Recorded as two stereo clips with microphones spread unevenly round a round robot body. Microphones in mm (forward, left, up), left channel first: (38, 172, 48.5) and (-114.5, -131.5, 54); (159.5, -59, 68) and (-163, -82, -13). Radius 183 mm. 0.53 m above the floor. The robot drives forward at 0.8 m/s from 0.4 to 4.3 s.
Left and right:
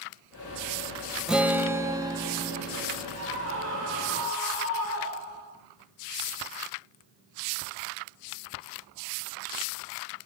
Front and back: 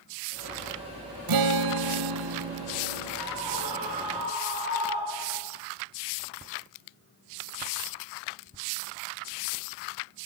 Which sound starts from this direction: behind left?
A guitar, at 1.3 s.